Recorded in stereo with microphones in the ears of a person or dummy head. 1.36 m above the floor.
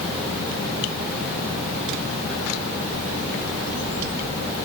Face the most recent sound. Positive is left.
No sound to turn to.